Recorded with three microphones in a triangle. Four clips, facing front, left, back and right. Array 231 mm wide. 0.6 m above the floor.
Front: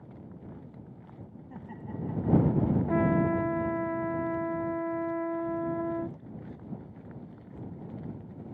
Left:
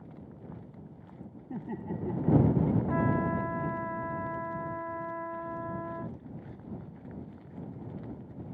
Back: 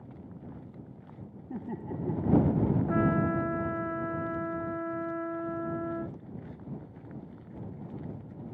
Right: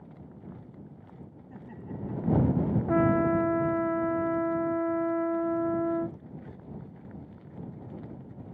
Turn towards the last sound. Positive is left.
turn(degrees=-80)